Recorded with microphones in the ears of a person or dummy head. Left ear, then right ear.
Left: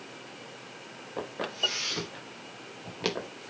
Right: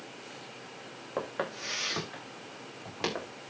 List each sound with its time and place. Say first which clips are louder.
1.2 s footsteps: left 4 dB; 40° right (ahead or behind), 9.5 m; by 3.3 s 50° right (ahead or behind), 10 m